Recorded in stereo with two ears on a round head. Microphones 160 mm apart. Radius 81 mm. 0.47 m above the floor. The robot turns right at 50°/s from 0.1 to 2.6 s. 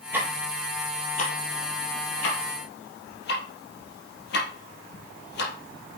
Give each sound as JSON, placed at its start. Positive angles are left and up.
{"t": 0.1, "sound": "ticking", "side_deg": -10, "distance_m": 4.0}